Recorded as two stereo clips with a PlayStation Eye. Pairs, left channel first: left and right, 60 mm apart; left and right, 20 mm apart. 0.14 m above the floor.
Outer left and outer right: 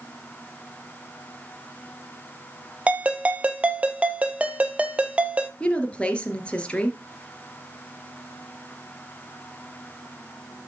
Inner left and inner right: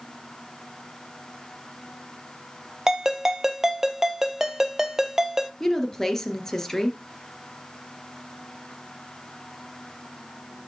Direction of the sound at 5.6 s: 20° left (ahead or behind).